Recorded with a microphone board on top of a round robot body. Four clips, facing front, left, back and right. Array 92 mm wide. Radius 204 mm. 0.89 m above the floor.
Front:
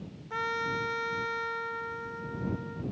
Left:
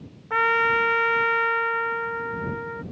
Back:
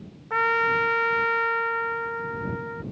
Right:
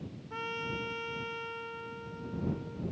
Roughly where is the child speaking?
No child speaking in this recording.